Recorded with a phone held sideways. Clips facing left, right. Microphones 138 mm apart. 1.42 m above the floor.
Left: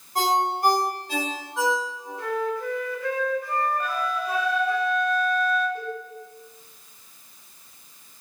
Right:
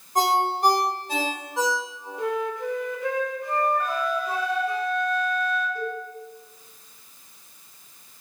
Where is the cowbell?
15° left (ahead or behind), 3 m.